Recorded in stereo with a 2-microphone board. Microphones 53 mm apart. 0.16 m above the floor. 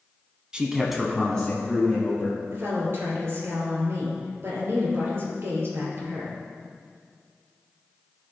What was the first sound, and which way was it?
A man speaking, 20° right (ahead or behind).